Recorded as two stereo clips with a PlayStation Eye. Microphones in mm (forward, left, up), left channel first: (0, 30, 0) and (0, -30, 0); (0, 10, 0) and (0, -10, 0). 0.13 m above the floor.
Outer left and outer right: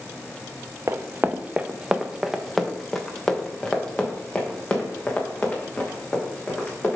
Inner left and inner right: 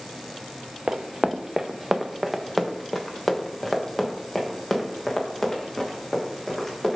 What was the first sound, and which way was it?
Running footsteps, 55° right (ahead or behind).